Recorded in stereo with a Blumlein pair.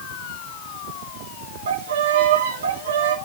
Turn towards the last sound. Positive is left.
turn(degrees=-60)